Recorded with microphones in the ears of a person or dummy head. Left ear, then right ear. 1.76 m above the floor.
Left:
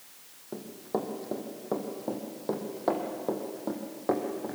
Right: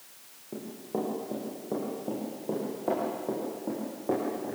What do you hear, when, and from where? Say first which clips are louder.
0.5 s running footsteps: left 1 dB; 55° left (ahead or behind), 4 m; by 4.5 s 60° left (ahead or behind), 4 m